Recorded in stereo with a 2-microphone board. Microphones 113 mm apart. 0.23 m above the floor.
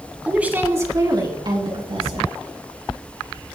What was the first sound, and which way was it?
A woman speaking, 10° right (ahead or behind).